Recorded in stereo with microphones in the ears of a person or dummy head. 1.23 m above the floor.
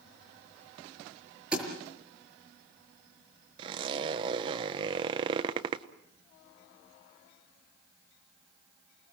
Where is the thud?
10° right (ahead or behind), 5.5 m.